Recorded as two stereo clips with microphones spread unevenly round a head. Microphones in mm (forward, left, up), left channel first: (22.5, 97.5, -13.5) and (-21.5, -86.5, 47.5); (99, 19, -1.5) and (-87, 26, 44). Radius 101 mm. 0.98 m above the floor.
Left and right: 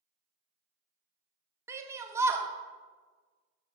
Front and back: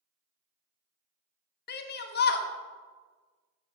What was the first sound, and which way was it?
A shout, 20° right.